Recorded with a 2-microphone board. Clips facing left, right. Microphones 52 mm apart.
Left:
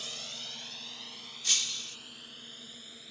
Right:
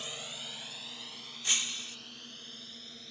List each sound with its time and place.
0.0 s a drone: 15° right (ahead or behind); by 3.1 s 10° left (ahead or behind)
1.4 s breaking glass: 25° right (ahead or behind)